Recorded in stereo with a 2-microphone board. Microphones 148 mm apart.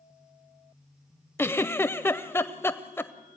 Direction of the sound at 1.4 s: 15° left (ahead or behind).